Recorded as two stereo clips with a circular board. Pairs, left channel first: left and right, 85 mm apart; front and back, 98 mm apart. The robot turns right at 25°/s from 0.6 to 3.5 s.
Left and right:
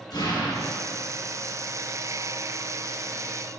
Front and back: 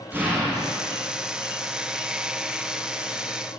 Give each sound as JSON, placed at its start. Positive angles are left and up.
{"t": 0.1, "sound": "an explosion", "azimuth_deg": 115, "distance_m": 3.5}